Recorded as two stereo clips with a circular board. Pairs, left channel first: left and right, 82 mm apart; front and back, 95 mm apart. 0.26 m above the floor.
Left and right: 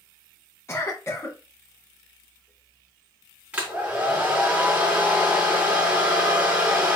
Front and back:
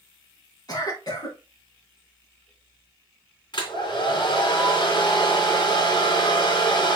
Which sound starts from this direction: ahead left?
A cough, at 0.7 s.